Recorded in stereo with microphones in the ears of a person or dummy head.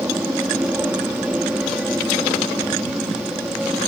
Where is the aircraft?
5° right (ahead or behind); by 3.9 s centre (ahead or behind).